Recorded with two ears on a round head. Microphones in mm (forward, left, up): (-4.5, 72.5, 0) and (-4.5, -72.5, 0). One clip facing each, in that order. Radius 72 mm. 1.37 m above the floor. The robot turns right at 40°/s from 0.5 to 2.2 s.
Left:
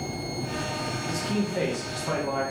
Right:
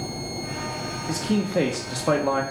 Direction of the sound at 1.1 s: 150° right.